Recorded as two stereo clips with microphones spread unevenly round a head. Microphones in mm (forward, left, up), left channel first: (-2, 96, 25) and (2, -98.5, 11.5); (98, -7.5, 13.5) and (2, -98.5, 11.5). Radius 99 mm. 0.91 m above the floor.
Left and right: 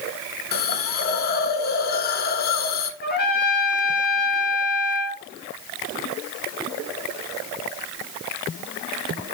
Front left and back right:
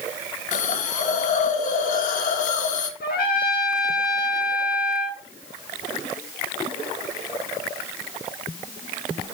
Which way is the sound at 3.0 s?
45° left.